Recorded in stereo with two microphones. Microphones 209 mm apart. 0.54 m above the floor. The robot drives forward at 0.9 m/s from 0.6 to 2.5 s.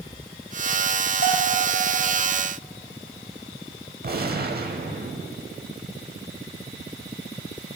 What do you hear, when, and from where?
1.2 s a bell: 50° left (ahead or behind), 1.8 m; by 1.6 s 40° left (ahead or behind), 2 m
4.0 s a gunshot: 45° right (ahead or behind), 0.7 m